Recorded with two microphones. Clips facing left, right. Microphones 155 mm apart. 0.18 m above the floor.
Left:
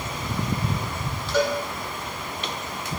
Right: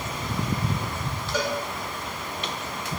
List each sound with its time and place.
1.3 s a cowbell: 10° right (ahead or behind), 0.8 m